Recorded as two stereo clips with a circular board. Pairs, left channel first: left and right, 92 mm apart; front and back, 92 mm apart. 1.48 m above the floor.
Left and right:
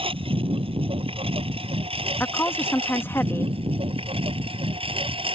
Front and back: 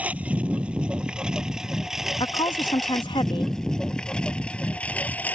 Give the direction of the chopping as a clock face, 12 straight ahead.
I don't hear chopping.